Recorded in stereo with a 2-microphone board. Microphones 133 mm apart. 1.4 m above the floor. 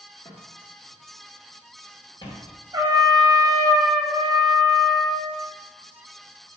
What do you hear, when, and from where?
0.2 s footsteps: 25° left (ahead or behind), 1.5 m; by 2.5 s 30° left (ahead or behind), 1.7 m
2.7 s a trumpet: 30° right (ahead or behind), 0.7 m